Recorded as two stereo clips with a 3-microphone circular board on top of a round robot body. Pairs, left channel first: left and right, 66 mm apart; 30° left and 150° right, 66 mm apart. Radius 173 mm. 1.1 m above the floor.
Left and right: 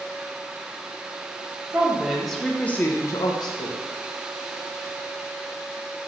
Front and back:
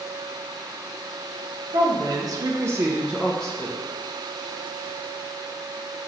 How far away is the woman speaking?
About 0.9 m.